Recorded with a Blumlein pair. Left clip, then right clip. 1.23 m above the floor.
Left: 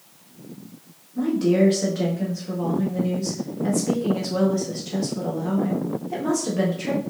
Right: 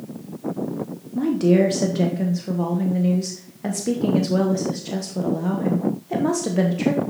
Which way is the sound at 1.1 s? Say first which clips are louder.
Right 2 dB; 50° right.